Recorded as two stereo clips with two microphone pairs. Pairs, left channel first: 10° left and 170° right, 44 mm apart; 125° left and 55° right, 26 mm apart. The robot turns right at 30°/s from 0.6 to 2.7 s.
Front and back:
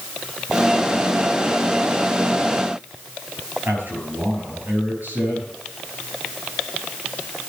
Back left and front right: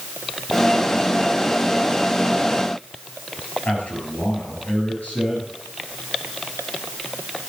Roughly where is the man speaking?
Behind left.